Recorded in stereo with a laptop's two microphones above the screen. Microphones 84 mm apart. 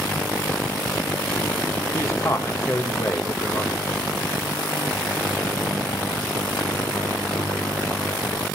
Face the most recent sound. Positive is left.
turn(degrees=35)  # may be behind; listen again after turning